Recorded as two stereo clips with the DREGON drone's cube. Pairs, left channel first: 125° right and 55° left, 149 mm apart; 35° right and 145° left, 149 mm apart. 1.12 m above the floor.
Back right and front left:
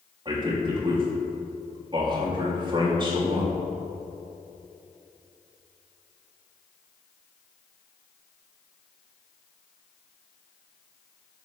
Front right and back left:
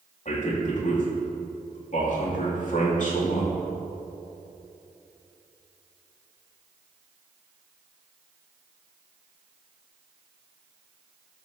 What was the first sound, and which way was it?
A man speaking, straight ahead.